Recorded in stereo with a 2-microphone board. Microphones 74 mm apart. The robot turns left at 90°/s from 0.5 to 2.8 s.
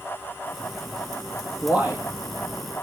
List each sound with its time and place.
1.6 s a man speaking: 5° right, 1.5 m; by 2.1 s 45° right, 1.5 m